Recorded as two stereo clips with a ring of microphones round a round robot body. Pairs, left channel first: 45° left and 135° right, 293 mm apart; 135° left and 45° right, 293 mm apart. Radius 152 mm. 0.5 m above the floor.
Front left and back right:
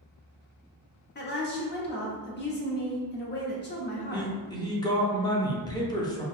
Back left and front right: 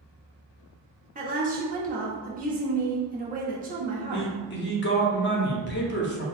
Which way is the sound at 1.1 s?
5° left.